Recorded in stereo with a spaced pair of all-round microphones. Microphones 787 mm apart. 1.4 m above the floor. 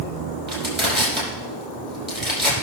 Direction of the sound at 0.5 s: 15° right (ahead or behind).